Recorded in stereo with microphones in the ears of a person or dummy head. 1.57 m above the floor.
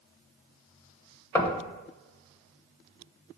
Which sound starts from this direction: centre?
Knocking, at 1.4 s.